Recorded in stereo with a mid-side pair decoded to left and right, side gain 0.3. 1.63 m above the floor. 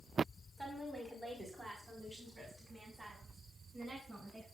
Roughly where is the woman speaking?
Ahead.